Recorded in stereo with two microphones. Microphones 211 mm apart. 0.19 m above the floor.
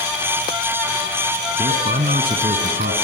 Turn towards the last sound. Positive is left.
turn(degrees=-50)  # may be behind; listen again after turning